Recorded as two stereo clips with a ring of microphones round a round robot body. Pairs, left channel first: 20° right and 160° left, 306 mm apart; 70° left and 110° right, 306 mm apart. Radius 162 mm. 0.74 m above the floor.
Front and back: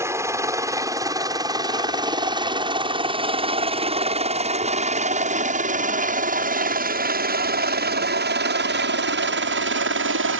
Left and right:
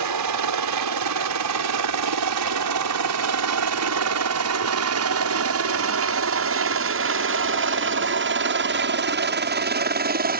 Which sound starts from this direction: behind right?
A helicopter, at 0.0 s.